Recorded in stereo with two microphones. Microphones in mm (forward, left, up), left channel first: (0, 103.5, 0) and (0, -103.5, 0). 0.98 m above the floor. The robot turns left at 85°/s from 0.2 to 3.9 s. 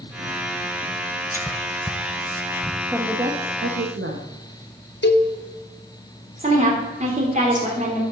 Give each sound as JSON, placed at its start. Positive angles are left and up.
{"t": 1.3, "sound": "whispering", "side_deg": 10, "distance_m": 0.7}
{"t": 2.9, "sound": "a woman speaking", "azimuth_deg": 0, "distance_m": 1.0}
{"t": 5.0, "sound": "a cowbell", "side_deg": 55, "distance_m": 0.7}
{"t": 6.4, "sound": "a woman speaking", "side_deg": -35, "distance_m": 2.5}